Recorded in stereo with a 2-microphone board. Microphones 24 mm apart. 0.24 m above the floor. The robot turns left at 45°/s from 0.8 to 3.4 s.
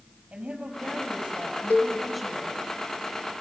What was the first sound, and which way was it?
A woman speaking, 120° right.